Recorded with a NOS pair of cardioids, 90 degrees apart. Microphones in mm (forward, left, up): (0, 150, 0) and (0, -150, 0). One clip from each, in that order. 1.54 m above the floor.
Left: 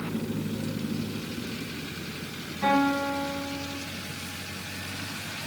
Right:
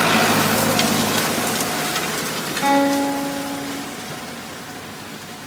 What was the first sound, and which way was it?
A guitar, 50° right.